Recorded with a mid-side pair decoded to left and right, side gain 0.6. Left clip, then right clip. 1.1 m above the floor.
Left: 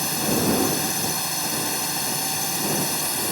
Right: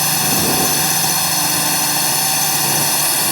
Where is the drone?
45° right.